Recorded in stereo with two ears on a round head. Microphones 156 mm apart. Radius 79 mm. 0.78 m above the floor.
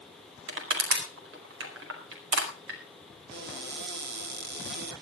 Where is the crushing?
75° right (ahead or behind), 4.5 m.